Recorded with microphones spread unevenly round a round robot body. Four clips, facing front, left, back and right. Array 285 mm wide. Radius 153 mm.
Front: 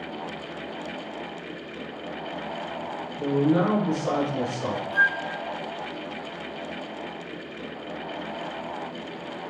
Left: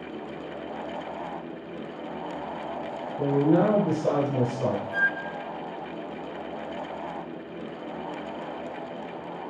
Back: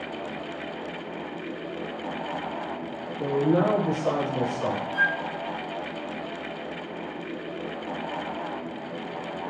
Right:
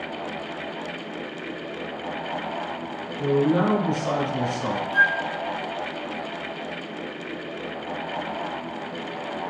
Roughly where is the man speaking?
Left.